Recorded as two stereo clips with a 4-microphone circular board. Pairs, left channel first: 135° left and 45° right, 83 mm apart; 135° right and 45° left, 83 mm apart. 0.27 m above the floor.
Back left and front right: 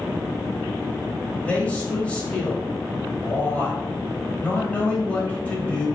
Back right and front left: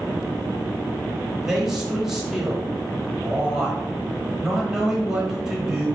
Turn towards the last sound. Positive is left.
turn(degrees=115)